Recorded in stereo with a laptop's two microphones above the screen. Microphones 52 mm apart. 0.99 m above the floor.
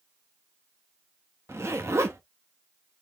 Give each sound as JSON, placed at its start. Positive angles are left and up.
{"t": 1.5, "sound": "a zipper", "side_deg": -60, "distance_m": 0.8}